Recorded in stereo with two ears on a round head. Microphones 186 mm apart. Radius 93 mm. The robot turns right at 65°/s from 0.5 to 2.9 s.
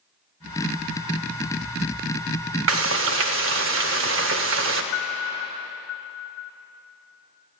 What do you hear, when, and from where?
2.7 s frying: 70° right (ahead or behind), 0.7 m; by 4.8 s 65° right (ahead or behind), 0.7 m
4.9 s a piano: 60° left (ahead or behind), 0.7 m